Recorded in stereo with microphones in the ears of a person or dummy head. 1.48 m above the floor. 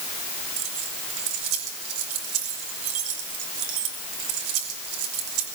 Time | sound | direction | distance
0.6 | keys jangling | 80° right | 5 m